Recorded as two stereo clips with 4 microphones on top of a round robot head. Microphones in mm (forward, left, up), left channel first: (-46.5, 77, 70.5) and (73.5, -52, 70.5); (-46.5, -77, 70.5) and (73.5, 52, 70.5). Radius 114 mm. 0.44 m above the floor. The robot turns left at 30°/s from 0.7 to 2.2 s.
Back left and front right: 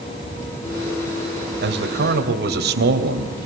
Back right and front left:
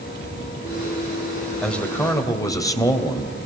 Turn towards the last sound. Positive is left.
turn(degrees=-65)